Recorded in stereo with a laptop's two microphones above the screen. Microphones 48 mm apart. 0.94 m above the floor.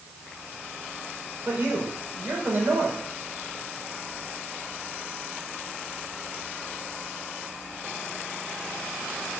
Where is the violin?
No violin in this recording.